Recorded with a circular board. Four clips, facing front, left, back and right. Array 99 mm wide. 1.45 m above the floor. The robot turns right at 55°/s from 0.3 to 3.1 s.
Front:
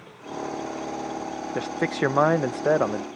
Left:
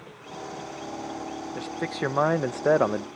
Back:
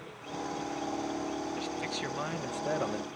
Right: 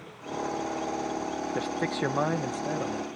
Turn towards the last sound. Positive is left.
turn(degrees=70)